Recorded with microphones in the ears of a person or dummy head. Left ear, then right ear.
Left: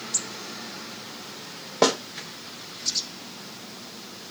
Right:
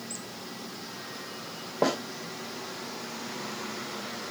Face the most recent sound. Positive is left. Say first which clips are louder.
# left 6 dB
turn(degrees=75)  # may be behind; listen again after turning